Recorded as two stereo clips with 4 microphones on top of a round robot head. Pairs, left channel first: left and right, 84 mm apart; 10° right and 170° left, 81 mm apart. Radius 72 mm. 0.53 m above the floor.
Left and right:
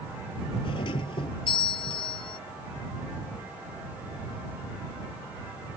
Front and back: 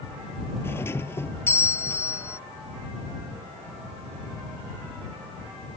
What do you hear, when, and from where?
0.6 s a doorbell: 50° left